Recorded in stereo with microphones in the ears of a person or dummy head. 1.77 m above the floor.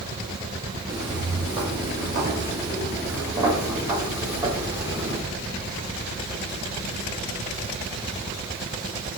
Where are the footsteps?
15° right (ahead or behind), 1.8 m; by 5.2 s 10° right (ahead or behind), 3.5 m.